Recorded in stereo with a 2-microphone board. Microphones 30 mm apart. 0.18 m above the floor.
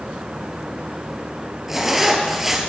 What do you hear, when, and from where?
1.7 s a zipper: 15° right (ahead or behind), 2.5 m